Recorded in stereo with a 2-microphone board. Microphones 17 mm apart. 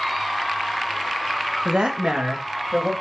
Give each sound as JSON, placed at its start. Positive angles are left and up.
{"t": 1.6, "sound": "a woman speaking", "side_deg": -65, "distance_m": 0.5}